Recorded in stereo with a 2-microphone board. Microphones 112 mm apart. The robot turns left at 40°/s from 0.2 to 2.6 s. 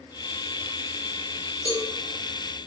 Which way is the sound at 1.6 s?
65° right (ahead or behind).